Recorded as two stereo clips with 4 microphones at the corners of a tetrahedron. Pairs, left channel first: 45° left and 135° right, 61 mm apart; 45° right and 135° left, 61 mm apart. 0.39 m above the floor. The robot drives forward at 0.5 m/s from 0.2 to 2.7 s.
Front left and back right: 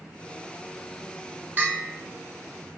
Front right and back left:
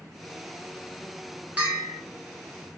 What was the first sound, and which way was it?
A bell, 175° right.